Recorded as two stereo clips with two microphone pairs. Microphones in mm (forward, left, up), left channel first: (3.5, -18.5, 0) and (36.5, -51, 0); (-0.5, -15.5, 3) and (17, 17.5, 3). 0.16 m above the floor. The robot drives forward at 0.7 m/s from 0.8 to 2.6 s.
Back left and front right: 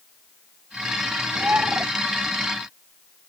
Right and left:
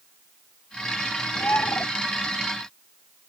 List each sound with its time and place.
1.4 s a bird: 95° right